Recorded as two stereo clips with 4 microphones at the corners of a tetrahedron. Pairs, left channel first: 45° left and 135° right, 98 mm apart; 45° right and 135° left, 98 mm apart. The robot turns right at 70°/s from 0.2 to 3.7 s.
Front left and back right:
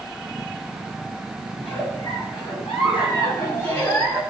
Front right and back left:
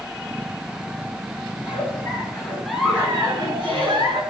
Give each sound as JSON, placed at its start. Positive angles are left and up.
{"t": 1.6, "sound": "a giggle", "azimuth_deg": -35, "distance_m": 7.5}